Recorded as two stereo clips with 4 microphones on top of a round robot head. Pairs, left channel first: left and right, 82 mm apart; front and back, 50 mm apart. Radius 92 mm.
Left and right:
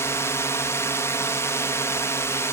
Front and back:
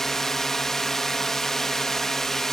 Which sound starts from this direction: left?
A drone, at 0.0 s.